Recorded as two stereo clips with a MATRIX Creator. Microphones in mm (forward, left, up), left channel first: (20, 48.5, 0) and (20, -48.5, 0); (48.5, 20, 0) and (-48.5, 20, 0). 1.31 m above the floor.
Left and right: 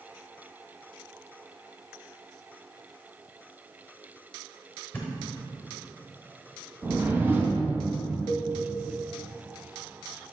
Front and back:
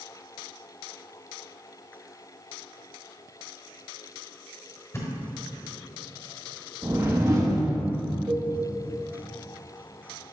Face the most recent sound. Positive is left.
turn(degrees=160)